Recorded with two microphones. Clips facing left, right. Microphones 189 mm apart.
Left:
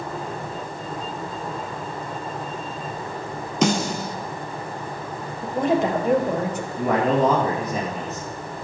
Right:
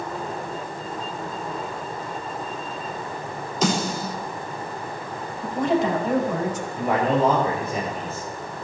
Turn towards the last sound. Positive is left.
turn(degrees=40)  # may be behind; listen again after turning